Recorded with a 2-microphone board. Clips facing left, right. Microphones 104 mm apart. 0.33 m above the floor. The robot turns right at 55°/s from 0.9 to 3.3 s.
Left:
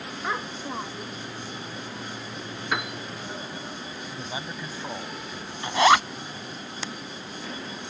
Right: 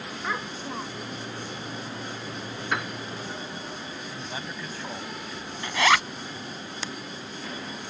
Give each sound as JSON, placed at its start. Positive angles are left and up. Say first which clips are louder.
{"t": 0.2, "sound": "a child speaking", "louder": "left 1 dB", "side_deg": 15}
{"t": 2.7, "sound": "a piano", "louder": "left 1 dB", "side_deg": 5}
{"t": 4.1, "sound": "a man speaking", "louder": "left 3 dB", "side_deg": 15}
{"t": 5.6, "sound": "a zipper", "louder": "left 4 dB", "side_deg": 25}